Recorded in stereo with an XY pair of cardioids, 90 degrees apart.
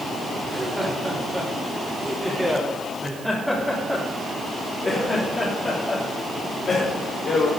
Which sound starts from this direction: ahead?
Laughter, at 0.4 s.